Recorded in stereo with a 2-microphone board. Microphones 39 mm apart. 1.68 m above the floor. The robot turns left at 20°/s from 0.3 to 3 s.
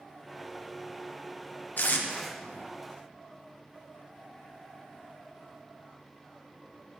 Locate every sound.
1.8 s tape being pulled: 55° left (ahead or behind), 0.9 m; by 2.1 s 45° left (ahead or behind), 0.9 m